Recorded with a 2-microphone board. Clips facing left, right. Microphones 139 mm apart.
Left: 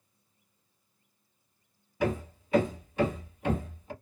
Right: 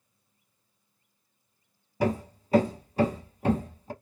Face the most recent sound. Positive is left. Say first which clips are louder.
# right 3 dB
turn(degrees=-40)  # may be behind; listen again after turning